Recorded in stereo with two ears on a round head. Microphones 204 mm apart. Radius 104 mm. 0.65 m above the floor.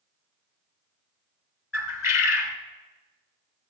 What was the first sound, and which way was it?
A bird, 60° left (ahead or behind).